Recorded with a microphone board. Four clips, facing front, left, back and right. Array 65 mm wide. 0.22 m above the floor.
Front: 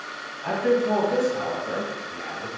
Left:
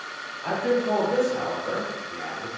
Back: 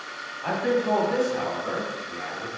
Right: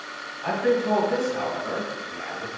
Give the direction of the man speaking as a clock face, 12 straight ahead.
5 o'clock.